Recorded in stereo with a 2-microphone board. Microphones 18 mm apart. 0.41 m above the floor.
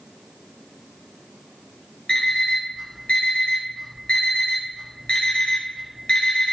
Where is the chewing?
I don't hear chewing.